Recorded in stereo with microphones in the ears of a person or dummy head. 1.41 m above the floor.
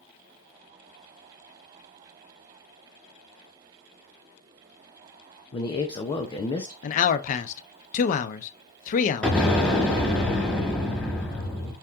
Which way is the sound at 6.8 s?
45° left (ahead or behind).